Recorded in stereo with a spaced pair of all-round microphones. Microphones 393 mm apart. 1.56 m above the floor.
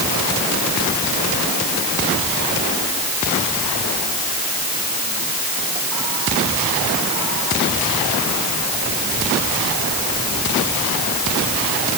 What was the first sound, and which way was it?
Only background noise.